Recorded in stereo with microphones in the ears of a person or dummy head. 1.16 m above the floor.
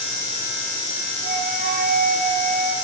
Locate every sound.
1.2 s a flute: 50° right (ahead or behind), 3.5 m